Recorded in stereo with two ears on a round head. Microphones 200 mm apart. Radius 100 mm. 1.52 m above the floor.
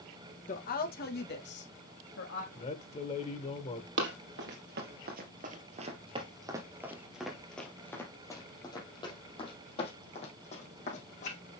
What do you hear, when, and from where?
0.5 s a woman speaking: 40° left (ahead or behind), 1.8 m; by 2.5 s 65° left (ahead or behind), 3.5 m
2.5 s a man speaking: 30° left (ahead or behind), 1.4 m
4.0 s running footsteps: 60° right (ahead or behind), 3 m; by 11.4 s 35° left (ahead or behind), 5 m